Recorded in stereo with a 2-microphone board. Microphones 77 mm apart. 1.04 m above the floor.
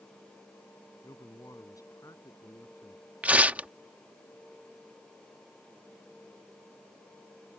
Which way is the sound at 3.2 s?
20° right (ahead or behind).